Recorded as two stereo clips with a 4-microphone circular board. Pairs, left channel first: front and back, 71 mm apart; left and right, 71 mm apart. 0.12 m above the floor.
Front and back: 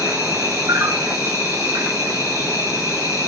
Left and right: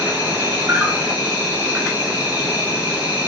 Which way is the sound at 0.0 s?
155° right.